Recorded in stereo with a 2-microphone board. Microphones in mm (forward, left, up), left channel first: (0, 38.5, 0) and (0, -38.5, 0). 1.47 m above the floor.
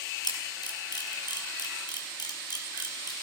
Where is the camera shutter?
75° left (ahead or behind), 3.5 m.